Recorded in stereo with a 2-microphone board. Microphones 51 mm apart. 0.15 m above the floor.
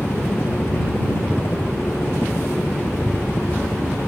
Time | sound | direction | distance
0.0 | a helicopter | 40° left (ahead or behind) | ?